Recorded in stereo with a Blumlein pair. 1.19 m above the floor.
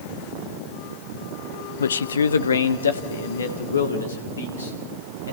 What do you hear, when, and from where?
1.8 s a man speaking: 65° left, 0.6 m; by 5.3 s 70° left, 5 m